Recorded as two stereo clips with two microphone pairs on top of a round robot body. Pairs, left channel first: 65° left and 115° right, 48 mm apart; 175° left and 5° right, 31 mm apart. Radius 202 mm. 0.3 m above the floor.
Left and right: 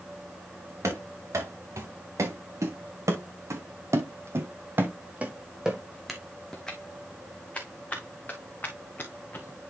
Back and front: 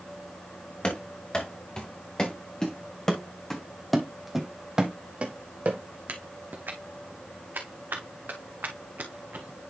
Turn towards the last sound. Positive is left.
turn(degrees=15)